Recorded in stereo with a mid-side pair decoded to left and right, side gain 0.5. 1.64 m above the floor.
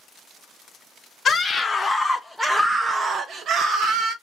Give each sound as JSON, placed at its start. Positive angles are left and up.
{"t": 1.2, "sound": "a scream", "azimuth_deg": 35, "distance_m": 1.0}